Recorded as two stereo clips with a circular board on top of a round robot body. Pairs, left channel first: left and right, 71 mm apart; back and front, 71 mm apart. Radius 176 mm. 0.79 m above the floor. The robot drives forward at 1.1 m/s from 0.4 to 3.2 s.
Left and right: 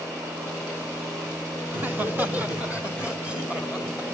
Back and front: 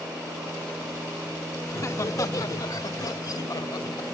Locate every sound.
1.7 s laughter: 145° right, 1.6 m; by 4.1 s 165° right, 3 m